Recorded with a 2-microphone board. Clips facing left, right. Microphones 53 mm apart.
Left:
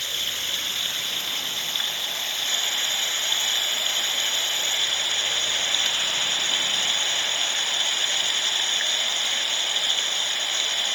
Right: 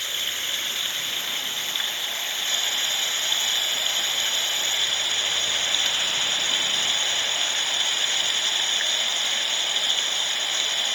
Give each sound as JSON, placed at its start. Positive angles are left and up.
{"t": 0.0, "sound": "running water", "side_deg": -15}